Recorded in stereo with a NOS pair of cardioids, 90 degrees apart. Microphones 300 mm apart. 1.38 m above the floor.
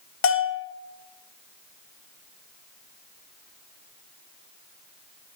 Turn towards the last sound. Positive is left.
turn(degrees=45)